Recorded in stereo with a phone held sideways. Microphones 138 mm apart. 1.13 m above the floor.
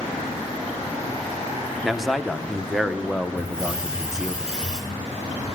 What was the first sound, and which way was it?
A man speaking, centre (ahead or behind).